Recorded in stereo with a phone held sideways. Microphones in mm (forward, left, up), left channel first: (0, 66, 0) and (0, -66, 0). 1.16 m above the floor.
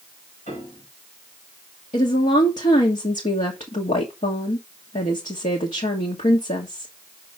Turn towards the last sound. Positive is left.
turn(degrees=65)  # may be behind; listen again after turning